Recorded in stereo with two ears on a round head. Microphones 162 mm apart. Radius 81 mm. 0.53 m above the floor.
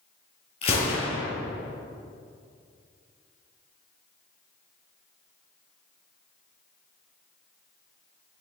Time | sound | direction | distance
0.6 | a gunshot | 30° left (ahead or behind) | 5 m